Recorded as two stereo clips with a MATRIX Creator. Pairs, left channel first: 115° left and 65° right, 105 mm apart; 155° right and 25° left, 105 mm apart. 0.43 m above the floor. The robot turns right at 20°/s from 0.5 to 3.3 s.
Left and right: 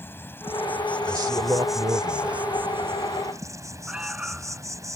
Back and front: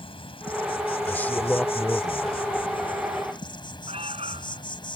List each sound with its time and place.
0.0 s an insect: straight behind; by 5.0 s 125° right
1.1 s a man speaking: 95° right; by 2.5 s 65° right
3.9 s an alarm: 15° left